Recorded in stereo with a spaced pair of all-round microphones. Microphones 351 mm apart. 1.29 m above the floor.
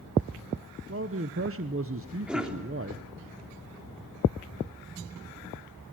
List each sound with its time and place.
0.9 s a man speaking: 40° right (ahead or behind), 0.9 m
2.3 s a cough: 5° right (ahead or behind), 3.5 m